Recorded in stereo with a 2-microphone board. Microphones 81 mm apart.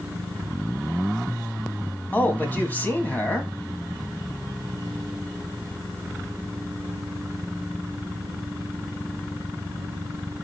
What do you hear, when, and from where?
2.1 s a man speaking: 25° left (ahead or behind), 1.5 m